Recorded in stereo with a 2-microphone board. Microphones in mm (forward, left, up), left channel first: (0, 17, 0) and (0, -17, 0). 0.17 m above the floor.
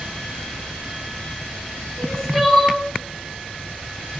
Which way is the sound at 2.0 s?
15° left (ahead or behind).